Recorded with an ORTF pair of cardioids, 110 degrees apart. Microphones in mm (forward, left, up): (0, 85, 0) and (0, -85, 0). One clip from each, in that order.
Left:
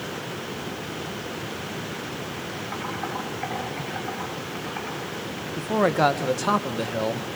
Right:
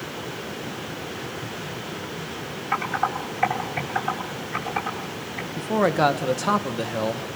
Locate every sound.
2.7 s typing on a keyboard: 70° right, 8.5 m
5.6 s a man speaking: 5° right, 1.6 m